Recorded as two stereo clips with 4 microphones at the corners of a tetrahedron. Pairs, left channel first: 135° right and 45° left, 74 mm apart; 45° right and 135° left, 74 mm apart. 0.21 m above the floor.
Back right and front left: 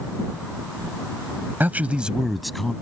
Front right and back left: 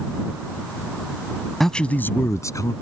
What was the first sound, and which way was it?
A man speaking, 35° left.